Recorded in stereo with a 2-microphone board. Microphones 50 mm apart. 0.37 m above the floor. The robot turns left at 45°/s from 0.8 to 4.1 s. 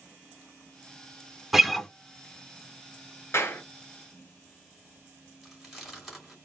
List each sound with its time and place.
1.5 s a guitar: 5° right (ahead or behind), 0.6 m; by 1.9 s 10° left (ahead or behind), 0.6 m
3.3 s a clap: 55° left (ahead or behind), 1.9 m; by 3.6 s 50° left (ahead or behind), 1.9 m
5.4 s chewing: centre (ahead or behind), 2.5 m